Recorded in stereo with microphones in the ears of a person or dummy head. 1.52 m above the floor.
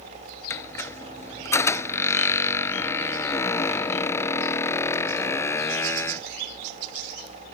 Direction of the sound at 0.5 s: 15° left (ahead or behind).